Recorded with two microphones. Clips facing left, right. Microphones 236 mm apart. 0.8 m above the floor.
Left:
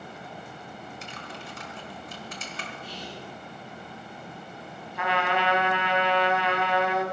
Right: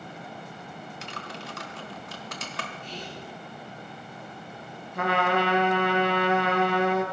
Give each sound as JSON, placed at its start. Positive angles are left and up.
{"t": 1.0, "sound": "typing on a keyboard", "side_deg": -70, "distance_m": 1.6}
{"t": 2.8, "sound": "whispering", "side_deg": 10, "distance_m": 6.0}
{"t": 5.0, "sound": "a trumpet", "side_deg": -50, "distance_m": 1.6}